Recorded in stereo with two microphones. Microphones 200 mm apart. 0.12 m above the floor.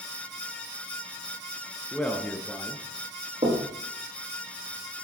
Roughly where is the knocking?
Right.